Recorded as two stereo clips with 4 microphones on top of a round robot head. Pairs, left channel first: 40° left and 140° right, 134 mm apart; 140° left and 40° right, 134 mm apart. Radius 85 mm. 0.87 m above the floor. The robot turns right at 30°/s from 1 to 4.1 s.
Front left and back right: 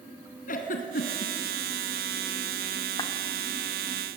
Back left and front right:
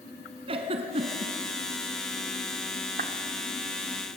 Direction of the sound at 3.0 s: 25° right.